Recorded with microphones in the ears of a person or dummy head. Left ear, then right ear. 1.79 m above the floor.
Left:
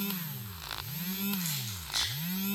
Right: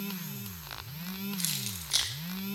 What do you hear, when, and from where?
1.4 s keys jangling: 60° right (ahead or behind), 2.5 m